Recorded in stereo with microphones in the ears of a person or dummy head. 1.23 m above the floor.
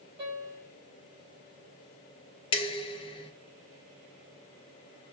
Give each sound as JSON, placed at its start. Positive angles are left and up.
{"t": 0.2, "sound": "a piano", "side_deg": -25, "distance_m": 3.0}
{"t": 2.5, "sound": "dishes clattering", "side_deg": 30, "distance_m": 0.6}